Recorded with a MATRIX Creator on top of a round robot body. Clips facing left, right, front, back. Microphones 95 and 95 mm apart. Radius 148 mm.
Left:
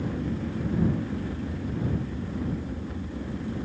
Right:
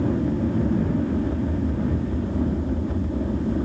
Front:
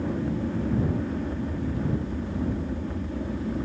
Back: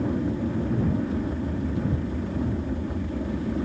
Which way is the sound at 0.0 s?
105° right.